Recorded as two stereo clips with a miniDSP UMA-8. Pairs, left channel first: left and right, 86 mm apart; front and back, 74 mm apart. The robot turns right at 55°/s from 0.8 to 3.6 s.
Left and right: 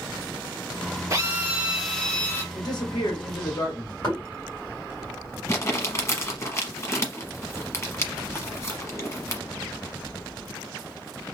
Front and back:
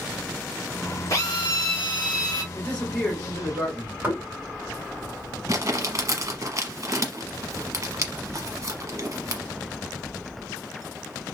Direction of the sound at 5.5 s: 140° left.